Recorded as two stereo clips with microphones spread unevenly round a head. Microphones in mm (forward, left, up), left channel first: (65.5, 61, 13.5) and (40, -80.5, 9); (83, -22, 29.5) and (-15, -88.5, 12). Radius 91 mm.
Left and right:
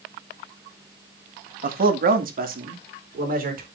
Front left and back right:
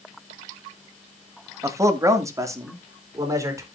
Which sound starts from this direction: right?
A man speaking, at 1.6 s.